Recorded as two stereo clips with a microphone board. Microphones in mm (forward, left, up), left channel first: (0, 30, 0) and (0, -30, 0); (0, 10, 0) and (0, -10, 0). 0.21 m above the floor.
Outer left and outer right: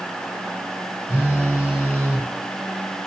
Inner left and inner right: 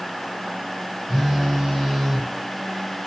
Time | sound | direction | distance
1.1 | a phone buzzing | 25° right (ahead or behind) | 1.6 m